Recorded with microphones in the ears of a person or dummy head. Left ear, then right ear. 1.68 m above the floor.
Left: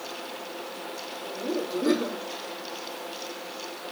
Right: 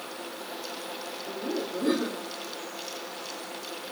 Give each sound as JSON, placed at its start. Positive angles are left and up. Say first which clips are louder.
{"t": 1.3, "sound": "laughter", "louder": "left 2 dB", "side_deg": 20, "distance_m": 4.0}